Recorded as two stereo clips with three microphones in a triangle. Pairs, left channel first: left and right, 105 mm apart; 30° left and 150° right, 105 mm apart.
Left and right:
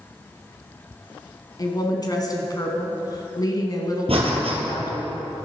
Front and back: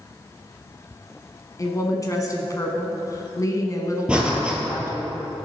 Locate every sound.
1.6 s a woman speaking: 65° left, 1.3 m
4.1 s breathing: 70° right, 1.7 m